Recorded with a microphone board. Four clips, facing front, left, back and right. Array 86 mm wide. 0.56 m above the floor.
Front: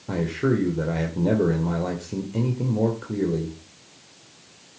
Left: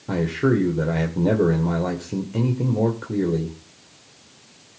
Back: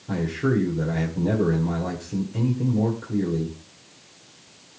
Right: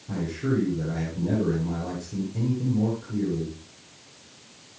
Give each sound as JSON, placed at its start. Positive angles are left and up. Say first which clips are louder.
{"t": 0.1, "sound": "a man speaking", "louder": "left 7 dB, front 1 dB", "azimuth_deg": 65, "distance_m": 2.0}